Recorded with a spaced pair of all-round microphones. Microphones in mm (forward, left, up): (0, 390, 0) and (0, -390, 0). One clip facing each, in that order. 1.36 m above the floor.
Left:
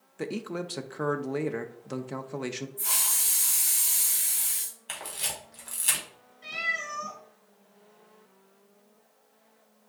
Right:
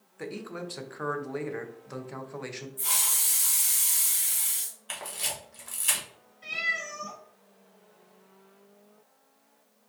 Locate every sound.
0.2 s a man speaking: 65° left (ahead or behind), 0.6 m
2.8 s a hiss: 45° right (ahead or behind), 1.9 m
4.9 s a camera shutter: 55° left (ahead or behind), 1.5 m
6.4 s a cat meowing: centre (ahead or behind), 2 m